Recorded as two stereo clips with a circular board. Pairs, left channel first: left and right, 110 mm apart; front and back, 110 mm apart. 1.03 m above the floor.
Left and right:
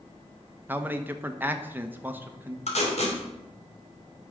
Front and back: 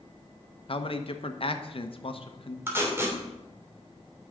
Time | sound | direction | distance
0.7 | a man speaking | 20° right | 1.0 m
2.7 | tape being pulled | 110° left | 3 m